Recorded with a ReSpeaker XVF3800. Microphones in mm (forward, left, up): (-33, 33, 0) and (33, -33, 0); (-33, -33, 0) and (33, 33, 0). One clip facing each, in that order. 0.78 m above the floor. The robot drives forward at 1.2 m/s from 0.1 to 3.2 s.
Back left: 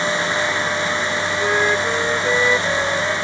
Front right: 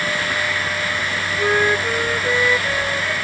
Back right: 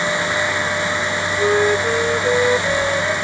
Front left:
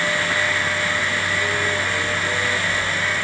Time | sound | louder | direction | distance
1.4 | a flute | front right 2 dB, back right 7 dB | 120° right | ?